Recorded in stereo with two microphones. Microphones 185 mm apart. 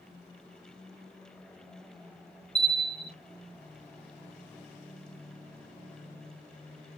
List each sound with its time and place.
2.5 s a bell: 10° left (ahead or behind), 1.0 m